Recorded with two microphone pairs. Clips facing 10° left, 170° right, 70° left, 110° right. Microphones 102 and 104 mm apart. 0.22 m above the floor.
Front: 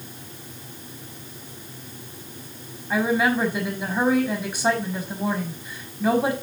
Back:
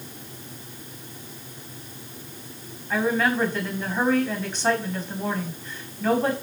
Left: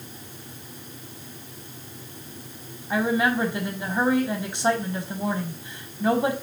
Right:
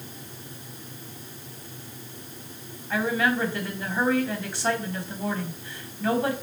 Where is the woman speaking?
75° left, 1.1 m.